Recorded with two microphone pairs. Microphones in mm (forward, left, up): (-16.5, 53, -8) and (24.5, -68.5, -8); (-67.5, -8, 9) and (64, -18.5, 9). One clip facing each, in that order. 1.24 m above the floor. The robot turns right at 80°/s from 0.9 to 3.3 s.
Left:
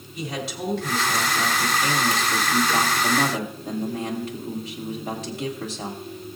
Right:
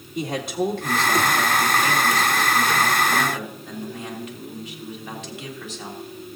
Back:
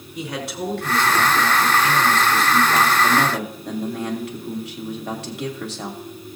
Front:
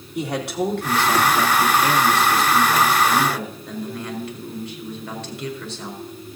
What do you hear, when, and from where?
0.1 s a man speaking: 30° right, 2.5 m; by 6.0 s 160° left, 2.5 m